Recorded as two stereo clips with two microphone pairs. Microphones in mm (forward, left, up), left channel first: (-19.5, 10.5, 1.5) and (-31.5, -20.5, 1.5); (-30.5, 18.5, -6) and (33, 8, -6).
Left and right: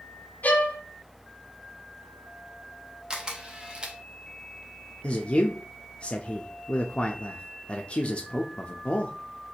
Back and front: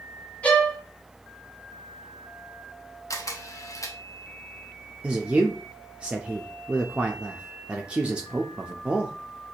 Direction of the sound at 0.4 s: 100° left.